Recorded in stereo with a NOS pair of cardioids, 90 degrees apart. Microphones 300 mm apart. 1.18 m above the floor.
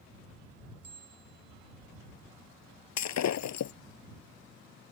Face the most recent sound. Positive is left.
turn(degrees=65)